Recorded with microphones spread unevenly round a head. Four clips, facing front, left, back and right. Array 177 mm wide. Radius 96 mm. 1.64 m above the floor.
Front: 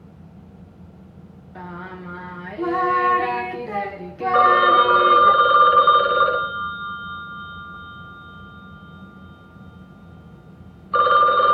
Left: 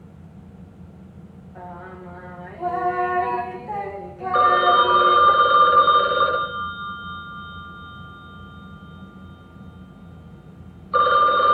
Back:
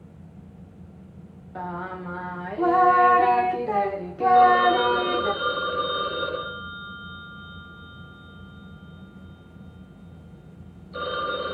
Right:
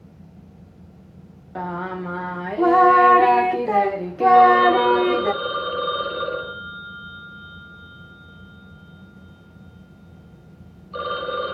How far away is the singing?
About 1.2 m.